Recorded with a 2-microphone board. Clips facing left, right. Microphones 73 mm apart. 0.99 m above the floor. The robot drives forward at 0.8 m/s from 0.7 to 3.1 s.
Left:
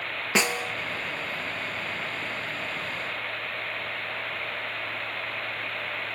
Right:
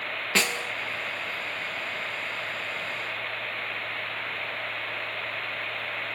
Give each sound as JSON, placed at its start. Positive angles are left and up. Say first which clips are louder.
{"t": 0.3, "sound": "a snare drum", "louder": "left 2 dB", "side_deg": 15, "distance_m": 0.8}